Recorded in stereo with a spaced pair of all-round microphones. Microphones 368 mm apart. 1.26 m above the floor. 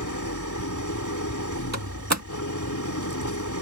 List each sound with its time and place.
0.0 s an engine running: 50° left (ahead or behind)
1.7 s a door slam: 45° right (ahead or behind)